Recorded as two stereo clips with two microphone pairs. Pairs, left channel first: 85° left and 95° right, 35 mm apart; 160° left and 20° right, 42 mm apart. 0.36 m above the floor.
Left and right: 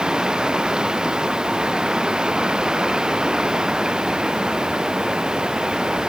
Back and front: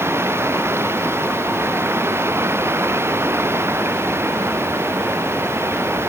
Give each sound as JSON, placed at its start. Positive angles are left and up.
{"t": 0.0, "sound": "running water", "azimuth_deg": -30}